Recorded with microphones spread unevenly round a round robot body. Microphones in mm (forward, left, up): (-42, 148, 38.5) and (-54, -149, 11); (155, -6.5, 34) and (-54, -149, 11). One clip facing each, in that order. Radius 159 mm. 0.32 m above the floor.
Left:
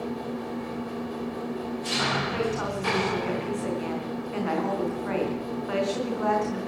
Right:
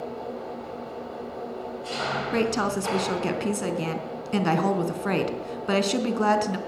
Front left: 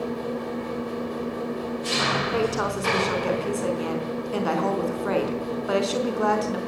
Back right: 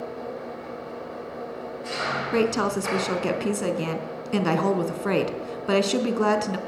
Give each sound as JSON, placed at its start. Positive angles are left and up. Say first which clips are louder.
{"t": 0.0, "sound": "an engine running", "louder": "left 2 dB, front left 5 dB", "azimuth_deg": 50, "distance_m": 1.6}
{"t": 2.3, "sound": "a woman speaking", "louder": "right 8 dB, back right 5 dB", "azimuth_deg": -95, "distance_m": 4.0}